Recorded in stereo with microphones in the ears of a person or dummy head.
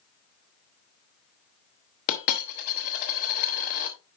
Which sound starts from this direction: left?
A dropped coin, at 2.1 s.